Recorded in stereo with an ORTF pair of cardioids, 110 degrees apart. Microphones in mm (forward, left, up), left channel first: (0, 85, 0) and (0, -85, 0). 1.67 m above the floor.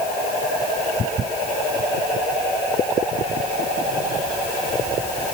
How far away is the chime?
I don't hear a chime.